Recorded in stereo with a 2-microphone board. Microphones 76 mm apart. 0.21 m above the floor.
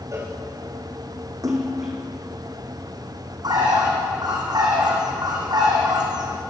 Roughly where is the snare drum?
No snare drum in this recording.